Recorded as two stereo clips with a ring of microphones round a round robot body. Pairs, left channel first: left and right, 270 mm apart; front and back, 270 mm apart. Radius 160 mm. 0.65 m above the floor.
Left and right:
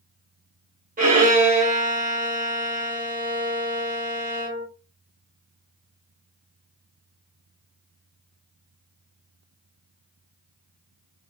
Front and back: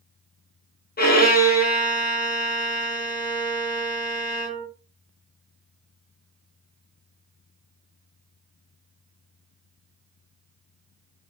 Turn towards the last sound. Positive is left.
turn(degrees=-40)